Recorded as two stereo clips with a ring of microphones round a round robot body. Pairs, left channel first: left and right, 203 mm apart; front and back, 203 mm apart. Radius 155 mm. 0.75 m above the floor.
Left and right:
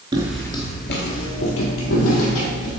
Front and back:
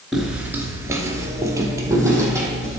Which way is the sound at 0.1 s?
90° right.